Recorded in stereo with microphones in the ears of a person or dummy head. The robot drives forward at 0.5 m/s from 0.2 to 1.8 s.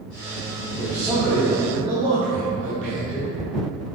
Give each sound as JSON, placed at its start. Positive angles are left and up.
{"t": 0.8, "sound": "a man speaking", "side_deg": -30, "distance_m": 0.9}